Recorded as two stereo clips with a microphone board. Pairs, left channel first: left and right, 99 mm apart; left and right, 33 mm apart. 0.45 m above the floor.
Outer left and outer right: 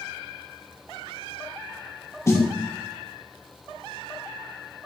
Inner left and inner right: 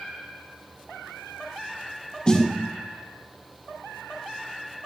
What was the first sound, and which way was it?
A snare drum, 30° left (ahead or behind).